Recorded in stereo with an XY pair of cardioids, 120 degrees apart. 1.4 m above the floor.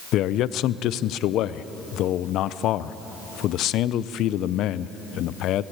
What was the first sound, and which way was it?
A man speaking, 70° left.